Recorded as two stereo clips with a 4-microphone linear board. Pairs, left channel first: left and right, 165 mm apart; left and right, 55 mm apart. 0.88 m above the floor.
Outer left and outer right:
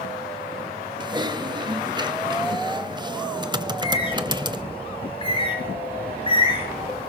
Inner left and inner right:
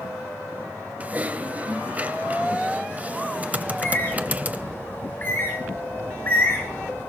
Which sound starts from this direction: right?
Typing on a keyboard, at 1.0 s.